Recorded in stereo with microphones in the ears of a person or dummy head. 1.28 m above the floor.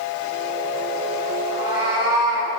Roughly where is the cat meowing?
Right.